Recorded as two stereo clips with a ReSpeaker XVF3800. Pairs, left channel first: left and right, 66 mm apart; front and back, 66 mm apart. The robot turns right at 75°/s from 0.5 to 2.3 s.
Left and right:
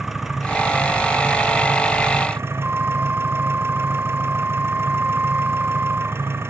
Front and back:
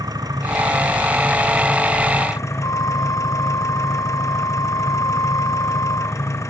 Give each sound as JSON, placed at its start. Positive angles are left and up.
{"t": 0.0, "sound": "an engine running", "azimuth_deg": -175}
{"t": 2.6, "sound": "a flute", "azimuth_deg": -20}